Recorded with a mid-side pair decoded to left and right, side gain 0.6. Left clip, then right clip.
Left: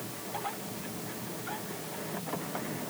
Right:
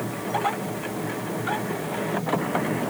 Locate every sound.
0.0 s a machine running: 55° right